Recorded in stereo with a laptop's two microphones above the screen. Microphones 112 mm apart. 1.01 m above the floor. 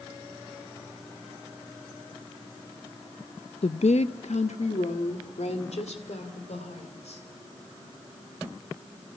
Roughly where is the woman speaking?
Left.